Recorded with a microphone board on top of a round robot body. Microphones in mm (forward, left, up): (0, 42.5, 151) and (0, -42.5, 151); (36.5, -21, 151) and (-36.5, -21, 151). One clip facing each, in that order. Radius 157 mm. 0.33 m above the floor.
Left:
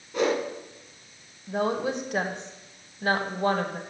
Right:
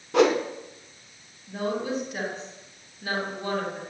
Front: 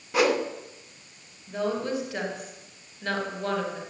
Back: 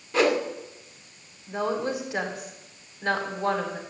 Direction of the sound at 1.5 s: 110° left.